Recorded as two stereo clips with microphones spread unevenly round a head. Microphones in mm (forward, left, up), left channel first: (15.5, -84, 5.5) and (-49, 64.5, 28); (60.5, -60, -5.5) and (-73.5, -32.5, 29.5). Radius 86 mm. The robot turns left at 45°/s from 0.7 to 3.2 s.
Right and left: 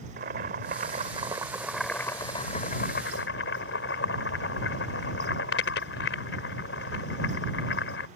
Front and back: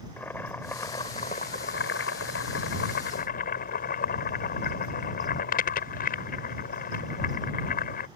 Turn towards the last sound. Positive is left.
turn(degrees=-35)